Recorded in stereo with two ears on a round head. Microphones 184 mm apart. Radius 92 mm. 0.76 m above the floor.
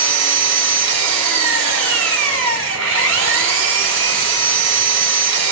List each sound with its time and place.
0.0 s an engine running: 65° right (ahead or behind), 0.9 m